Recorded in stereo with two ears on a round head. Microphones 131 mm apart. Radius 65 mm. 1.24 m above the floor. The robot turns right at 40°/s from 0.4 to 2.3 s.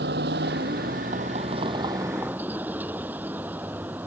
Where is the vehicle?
90° right; by 4.1 s 15° right.